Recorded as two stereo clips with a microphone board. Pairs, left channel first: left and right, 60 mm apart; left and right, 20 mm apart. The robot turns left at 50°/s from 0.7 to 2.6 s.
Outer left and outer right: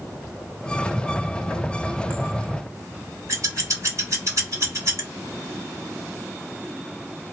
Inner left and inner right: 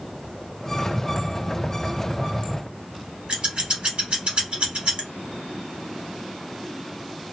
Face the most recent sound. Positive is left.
turn(degrees=-60)  # may be behind; listen again after turning